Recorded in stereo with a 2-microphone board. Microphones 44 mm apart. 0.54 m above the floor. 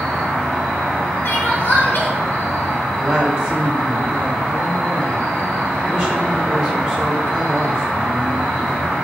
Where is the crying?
55° left (ahead or behind), 0.7 m.